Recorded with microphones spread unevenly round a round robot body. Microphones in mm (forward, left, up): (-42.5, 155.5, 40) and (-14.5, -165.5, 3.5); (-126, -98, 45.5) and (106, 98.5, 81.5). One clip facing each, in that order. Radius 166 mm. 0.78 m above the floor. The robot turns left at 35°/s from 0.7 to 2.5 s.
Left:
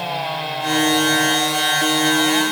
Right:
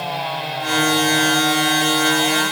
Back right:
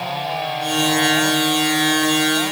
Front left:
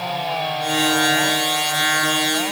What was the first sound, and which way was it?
Only background noise.